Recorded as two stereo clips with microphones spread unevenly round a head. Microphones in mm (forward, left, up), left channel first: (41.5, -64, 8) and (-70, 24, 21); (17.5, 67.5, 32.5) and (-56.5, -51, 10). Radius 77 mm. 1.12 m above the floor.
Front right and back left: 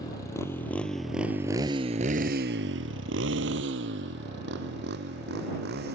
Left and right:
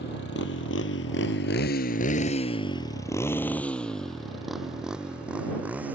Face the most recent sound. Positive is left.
turn(degrees=160)